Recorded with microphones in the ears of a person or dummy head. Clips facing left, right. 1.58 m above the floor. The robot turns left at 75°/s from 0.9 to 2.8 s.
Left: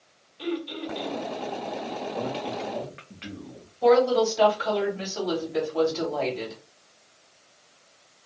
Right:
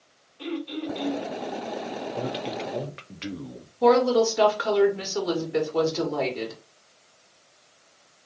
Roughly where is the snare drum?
I don't hear a snare drum.